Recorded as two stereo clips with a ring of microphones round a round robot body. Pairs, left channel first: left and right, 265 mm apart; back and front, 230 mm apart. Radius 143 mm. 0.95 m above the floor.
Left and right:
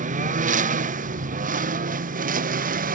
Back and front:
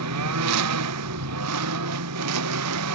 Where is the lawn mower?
25° right; by 3.0 s 30° right.